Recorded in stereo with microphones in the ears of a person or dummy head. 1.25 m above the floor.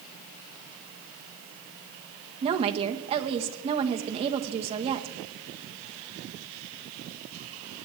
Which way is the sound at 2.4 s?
30° right (ahead or behind).